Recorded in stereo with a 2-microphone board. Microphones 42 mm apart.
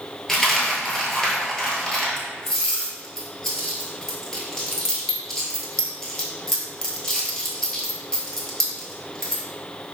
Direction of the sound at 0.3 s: 10° left (ahead or behind).